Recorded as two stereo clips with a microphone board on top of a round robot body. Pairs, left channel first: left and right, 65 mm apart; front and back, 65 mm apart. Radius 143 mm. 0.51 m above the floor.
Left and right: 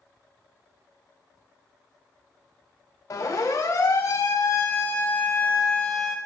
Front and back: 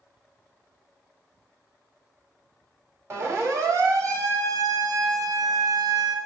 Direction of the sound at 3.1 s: 130° left.